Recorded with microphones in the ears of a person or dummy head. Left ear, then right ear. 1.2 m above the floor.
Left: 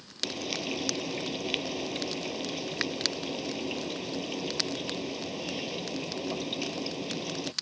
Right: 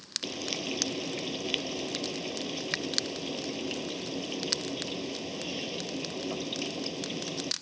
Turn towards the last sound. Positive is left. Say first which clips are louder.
# left 5 dB
turn(degrees=10)  # may be behind; listen again after turning